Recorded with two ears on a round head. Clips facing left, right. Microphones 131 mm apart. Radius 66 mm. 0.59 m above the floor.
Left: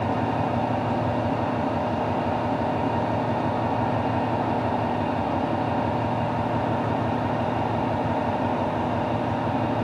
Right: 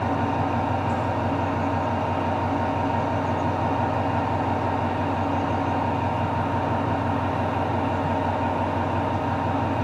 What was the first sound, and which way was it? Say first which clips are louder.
An engine running: even; 30° left (ahead or behind).